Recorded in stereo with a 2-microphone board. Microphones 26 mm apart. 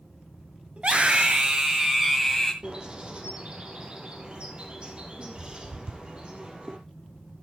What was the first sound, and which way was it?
A scream, 55° right (ahead or behind).